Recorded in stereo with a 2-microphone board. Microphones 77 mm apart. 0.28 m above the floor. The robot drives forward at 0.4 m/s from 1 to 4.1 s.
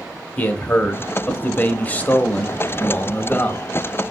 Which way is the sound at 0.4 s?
20° left (ahead or behind).